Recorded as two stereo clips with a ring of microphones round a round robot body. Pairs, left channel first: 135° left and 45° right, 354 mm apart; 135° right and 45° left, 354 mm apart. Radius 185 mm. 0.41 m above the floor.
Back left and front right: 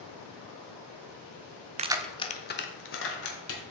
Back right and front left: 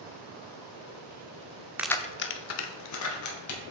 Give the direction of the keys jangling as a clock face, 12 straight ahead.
1 o'clock.